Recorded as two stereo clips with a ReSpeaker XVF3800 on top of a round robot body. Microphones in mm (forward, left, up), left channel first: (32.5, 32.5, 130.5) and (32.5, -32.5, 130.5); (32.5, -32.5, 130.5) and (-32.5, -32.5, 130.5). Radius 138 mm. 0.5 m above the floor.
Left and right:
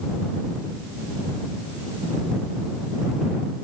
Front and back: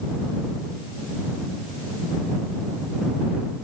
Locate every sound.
Only background noise.